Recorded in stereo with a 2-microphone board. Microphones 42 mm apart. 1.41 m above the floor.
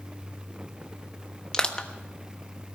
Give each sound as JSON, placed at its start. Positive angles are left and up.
{"t": 1.5, "sound": "crushing", "side_deg": 20, "distance_m": 1.2}